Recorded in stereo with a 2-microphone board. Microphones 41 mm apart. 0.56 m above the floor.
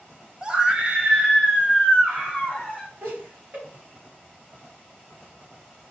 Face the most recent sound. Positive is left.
turn(degrees=-60)  # may be behind; listen again after turning